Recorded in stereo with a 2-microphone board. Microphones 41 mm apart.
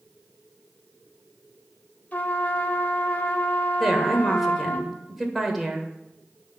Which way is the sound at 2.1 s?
45° left (ahead or behind).